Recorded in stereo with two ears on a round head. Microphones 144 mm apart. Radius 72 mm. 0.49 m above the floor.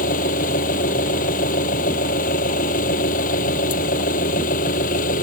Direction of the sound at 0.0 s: 60° left (ahead or behind).